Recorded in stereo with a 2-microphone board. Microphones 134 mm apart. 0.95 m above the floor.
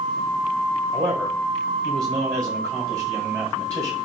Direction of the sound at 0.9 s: 20° right (ahead or behind).